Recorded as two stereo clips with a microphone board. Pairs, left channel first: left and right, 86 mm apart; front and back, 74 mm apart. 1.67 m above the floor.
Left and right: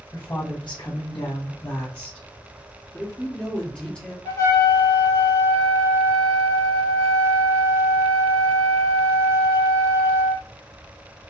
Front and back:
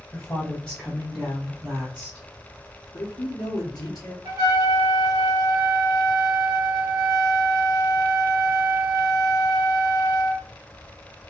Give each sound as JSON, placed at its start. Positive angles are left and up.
{"t": 0.1, "sound": "a woman speaking", "azimuth_deg": 60, "distance_m": 1.3}
{"t": 2.9, "sound": "a man speaking", "azimuth_deg": 15, "distance_m": 0.9}
{"t": 4.2, "sound": "a trumpet", "azimuth_deg": 145, "distance_m": 1.2}